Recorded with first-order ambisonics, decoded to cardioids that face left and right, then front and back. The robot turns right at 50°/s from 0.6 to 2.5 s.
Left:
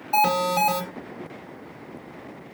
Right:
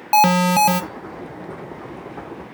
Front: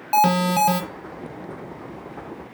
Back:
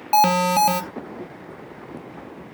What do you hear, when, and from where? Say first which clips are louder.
0.1 s an alarm: right 6 dB, back 2 dB; 95° right, 0.8 m; by 0.8 s 85° right, 0.8 m